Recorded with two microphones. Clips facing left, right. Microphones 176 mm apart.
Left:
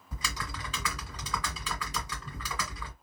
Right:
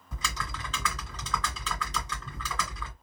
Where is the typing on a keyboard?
10° left (ahead or behind), 1.3 m.